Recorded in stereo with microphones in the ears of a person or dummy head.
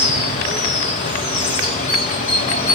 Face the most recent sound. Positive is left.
turn(degrees=30)  # may be behind; listen again after turning